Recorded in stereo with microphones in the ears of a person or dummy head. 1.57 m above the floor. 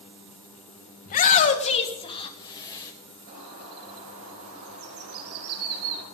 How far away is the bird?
About 5 m.